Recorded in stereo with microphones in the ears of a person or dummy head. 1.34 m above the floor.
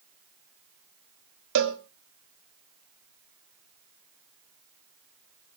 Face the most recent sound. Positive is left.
turn(degrees=-60)  # may be behind; listen again after turning